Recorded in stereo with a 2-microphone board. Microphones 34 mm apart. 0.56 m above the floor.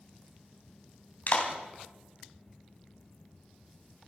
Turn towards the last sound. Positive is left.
turn(degrees=60)  # may be behind; listen again after turning